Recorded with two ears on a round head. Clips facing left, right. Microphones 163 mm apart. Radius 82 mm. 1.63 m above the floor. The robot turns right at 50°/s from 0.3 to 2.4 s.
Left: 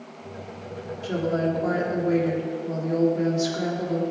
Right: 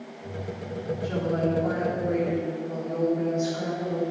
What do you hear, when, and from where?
1.0 s a woman speaking: 40° left, 3.5 m; by 4.0 s 110° left, 3.5 m